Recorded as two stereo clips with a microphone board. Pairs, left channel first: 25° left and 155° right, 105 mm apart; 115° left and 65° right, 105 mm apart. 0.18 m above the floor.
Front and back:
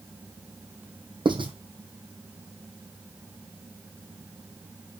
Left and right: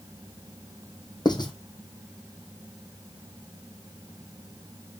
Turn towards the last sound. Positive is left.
turn(degrees=160)